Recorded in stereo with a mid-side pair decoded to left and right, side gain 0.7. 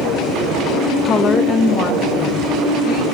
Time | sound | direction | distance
1.1 | a woman speaking | 30° left | 0.5 m